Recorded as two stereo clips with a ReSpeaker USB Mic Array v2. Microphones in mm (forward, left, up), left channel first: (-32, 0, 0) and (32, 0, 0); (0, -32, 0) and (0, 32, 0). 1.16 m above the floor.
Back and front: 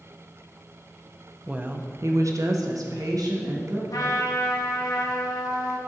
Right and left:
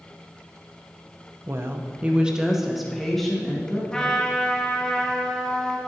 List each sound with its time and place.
1.5 s a woman speaking: 70° left, 0.7 m; by 3.8 s 5° right, 1.9 m
3.9 s a trumpet: 165° right, 1.0 m